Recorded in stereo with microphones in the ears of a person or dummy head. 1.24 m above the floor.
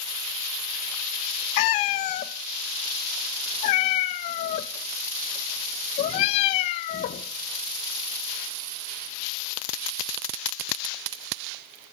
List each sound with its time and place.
1.6 s a cat meowing: 35° left (ahead or behind), 0.5 m